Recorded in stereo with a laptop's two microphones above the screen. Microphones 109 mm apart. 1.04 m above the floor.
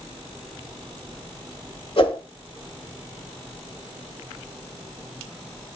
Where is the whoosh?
55° left (ahead or behind), 1.4 m.